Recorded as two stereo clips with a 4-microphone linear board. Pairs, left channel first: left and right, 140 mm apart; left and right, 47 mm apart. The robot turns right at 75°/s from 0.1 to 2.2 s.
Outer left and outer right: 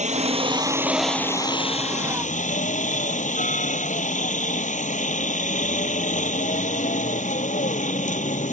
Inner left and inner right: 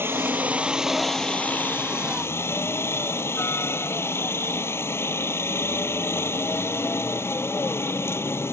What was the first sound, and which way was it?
A helicopter, 70° right.